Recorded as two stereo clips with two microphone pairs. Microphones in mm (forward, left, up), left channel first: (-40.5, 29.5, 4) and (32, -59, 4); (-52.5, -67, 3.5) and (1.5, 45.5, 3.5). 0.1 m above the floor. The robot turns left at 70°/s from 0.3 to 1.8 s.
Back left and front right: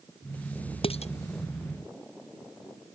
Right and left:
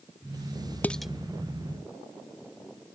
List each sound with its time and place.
0.8 s dishes clattering: 170° left; by 1.1 s 150° left